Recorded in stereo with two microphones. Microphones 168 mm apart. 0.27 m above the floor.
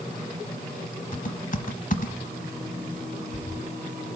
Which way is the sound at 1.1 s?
50° left (ahead or behind).